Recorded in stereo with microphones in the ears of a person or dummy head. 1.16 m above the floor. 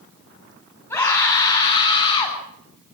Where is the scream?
15° left (ahead or behind), 8.5 m; by 2.4 s 30° left (ahead or behind), 8.5 m.